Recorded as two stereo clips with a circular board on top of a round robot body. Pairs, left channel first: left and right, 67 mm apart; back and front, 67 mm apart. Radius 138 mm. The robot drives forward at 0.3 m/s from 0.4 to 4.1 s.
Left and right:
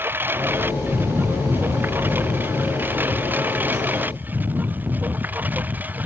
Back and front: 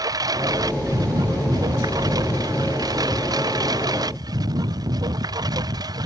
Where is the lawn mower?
30° right; by 6.1 s 25° right.